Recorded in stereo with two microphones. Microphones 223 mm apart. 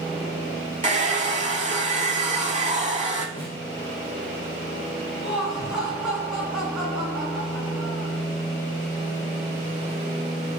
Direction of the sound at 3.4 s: 30° right (ahead or behind).